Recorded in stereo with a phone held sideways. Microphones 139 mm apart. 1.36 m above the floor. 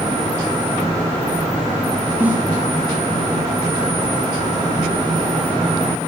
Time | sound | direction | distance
2.2 | a snare drum | 15° right (ahead or behind) | 8 m